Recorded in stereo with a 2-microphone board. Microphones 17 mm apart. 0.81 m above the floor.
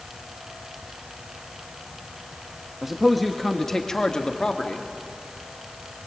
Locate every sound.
2.8 s a man speaking: 15° right (ahead or behind), 1.3 m; by 4.9 s 65° left (ahead or behind), 2 m